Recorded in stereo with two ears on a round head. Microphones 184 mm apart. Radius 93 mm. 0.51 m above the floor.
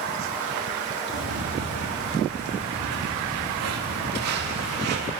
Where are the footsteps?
85° right, 6.5 m.